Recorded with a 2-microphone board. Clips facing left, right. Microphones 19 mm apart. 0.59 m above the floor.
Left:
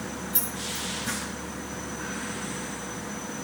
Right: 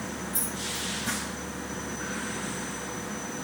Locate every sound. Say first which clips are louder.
0.3 s keys jangling: left 1 dB; 55° left (ahead or behind), 1.4 m